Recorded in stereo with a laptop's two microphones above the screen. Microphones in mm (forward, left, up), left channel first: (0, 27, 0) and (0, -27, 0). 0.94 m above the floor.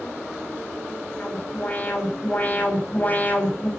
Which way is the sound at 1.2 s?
30° left (ahead or behind).